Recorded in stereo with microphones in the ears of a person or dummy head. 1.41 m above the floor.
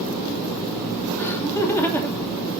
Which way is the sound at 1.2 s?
15° left (ahead or behind).